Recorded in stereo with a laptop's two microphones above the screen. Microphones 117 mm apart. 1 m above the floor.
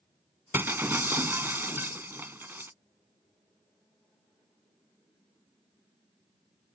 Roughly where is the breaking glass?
Centre.